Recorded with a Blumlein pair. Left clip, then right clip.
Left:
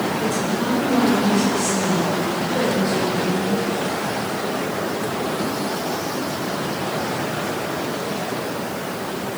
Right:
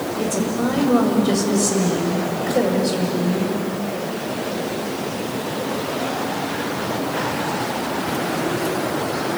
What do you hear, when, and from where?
0.2 s a woman speaking: 65° right, 7.5 m